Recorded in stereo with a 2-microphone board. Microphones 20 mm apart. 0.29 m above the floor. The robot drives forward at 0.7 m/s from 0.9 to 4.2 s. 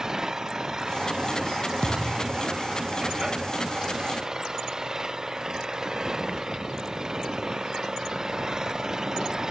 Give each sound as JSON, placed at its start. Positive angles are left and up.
{"t": 0.0, "sound": "an engine running", "side_deg": -30}
{"t": 1.8, "sound": "a thud", "side_deg": 60}